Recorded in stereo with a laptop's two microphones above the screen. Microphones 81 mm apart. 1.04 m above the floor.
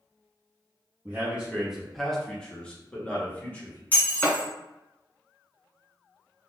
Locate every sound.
1.1 s a man speaking: 15° right (ahead or behind), 0.8 m; by 3.8 s 20° left (ahead or behind), 1.4 m
3.9 s breaking glass: 20° left (ahead or behind), 1.7 m